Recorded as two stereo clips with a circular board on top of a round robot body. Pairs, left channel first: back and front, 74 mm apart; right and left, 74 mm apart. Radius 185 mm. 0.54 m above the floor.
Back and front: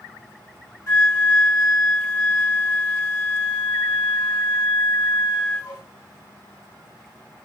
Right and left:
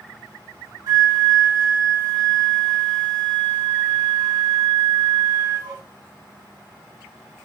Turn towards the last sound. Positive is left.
turn(degrees=125)